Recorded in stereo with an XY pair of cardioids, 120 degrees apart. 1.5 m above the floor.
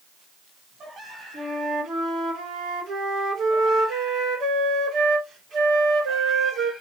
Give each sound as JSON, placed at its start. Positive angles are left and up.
{"t": 1.3, "sound": "a flute", "azimuth_deg": -65, "distance_m": 2.0}